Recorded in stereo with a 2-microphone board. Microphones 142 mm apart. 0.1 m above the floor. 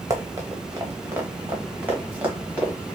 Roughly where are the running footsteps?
Right.